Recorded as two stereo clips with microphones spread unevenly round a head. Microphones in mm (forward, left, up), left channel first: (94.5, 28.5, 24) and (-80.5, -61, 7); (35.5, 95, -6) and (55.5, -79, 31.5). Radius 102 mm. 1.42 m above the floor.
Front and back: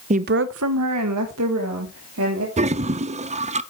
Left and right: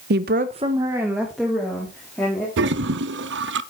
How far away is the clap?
I don't hear a clap.